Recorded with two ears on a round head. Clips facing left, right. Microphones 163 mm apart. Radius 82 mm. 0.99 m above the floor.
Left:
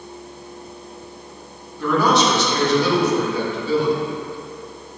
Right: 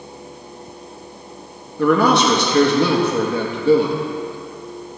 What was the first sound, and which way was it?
A man speaking, 50° right (ahead or behind).